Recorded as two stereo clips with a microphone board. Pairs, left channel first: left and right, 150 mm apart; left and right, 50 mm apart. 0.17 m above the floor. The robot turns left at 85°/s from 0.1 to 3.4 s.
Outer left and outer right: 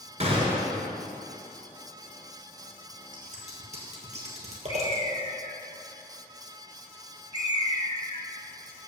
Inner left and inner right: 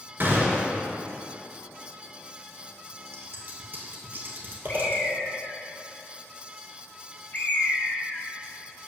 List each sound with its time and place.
0.2 s a gunshot: 125° right, 1.3 m; by 0.8 s 175° right, 1.3 m
3.1 s scissors: 70° right (ahead or behind), 1.5 m; by 5.0 s 50° right (ahead or behind), 1.5 m
4.7 s a bird: 35° left (ahead or behind), 0.7 m